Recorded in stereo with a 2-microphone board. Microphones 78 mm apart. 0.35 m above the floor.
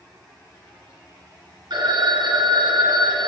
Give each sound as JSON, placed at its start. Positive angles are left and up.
{"t": 1.7, "sound": "a phone ringing", "side_deg": -70, "distance_m": 2.5}